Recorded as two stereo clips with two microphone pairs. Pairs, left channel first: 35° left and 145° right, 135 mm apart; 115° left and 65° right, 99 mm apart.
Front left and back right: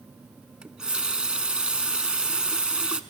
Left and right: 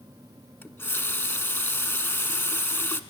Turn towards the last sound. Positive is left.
turn(degrees=140)